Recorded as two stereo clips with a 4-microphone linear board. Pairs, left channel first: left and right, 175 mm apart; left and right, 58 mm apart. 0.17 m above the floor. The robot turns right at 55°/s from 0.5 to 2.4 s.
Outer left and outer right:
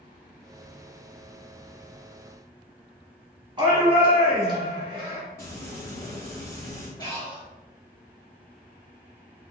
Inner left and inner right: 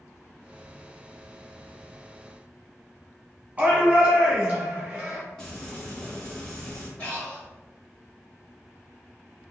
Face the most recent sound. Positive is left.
turn(degrees=25)  # may be behind; listen again after turning